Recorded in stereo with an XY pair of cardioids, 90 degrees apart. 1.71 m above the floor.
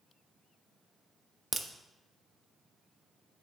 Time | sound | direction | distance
1.5 | a crack | 35° right | 0.7 m